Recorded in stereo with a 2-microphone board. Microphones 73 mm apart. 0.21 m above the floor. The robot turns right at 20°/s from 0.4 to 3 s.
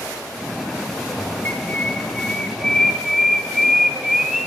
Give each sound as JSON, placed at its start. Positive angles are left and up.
{"t": 1.4, "sound": "a bird", "side_deg": 30, "distance_m": 2.0}